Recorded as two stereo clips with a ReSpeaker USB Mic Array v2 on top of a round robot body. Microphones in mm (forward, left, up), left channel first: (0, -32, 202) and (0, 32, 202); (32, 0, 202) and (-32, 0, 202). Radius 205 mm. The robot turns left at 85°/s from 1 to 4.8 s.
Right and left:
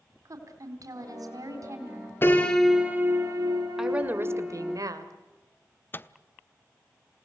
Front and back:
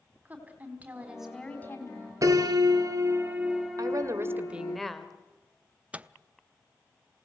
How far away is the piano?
About 2 m.